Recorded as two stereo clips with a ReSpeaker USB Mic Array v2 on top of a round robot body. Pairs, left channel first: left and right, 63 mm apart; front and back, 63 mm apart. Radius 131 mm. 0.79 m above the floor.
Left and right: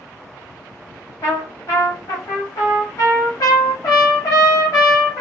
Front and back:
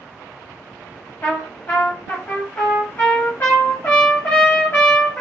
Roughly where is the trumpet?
Ahead left.